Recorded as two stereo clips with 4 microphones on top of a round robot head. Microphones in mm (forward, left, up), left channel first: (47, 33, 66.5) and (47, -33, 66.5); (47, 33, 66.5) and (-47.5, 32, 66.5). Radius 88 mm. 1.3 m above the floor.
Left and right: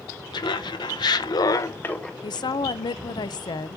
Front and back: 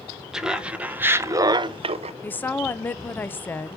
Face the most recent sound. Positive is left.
turn(degrees=75)